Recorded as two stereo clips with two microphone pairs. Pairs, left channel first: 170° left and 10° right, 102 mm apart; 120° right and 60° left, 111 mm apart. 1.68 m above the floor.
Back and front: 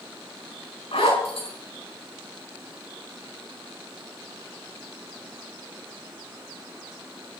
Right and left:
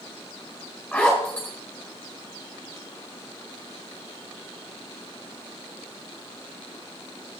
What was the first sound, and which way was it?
A zipper, 160° left.